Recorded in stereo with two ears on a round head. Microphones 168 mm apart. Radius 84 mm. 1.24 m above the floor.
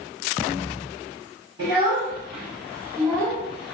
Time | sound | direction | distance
1.6 | a child speaking | 30° right (ahead or behind) | 1.9 m